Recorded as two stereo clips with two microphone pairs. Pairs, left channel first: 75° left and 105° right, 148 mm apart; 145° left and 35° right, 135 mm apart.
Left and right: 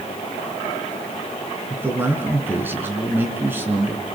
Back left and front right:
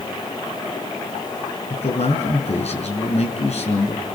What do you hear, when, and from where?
1.7 s a man speaking: straight behind, 4.5 m